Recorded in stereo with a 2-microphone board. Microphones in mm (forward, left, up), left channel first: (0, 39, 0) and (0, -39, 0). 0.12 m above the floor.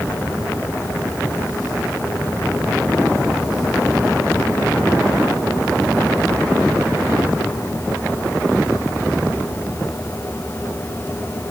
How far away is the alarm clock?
No alarm clock in this recording.